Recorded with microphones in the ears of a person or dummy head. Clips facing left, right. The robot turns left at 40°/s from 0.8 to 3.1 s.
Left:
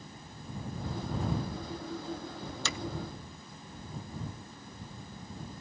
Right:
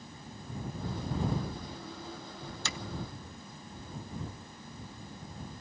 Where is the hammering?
65° left (ahead or behind); by 2.8 s 70° left (ahead or behind).